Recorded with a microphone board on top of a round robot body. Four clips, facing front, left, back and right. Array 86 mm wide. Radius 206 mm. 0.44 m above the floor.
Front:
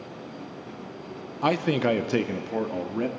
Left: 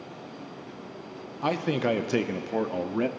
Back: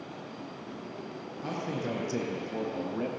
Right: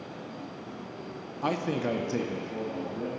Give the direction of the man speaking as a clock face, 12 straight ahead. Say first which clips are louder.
Left 3 dB, front 11 dB; 12 o'clock.